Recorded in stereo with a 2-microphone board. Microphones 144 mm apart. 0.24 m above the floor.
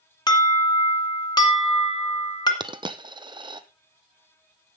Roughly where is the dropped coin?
Right.